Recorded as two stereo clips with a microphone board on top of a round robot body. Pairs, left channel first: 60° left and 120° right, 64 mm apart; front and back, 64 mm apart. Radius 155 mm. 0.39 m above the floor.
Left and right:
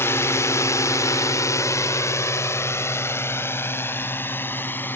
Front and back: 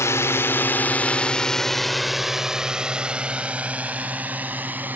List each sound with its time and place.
0.0 s a drone: 25° left; by 5.0 s 120° left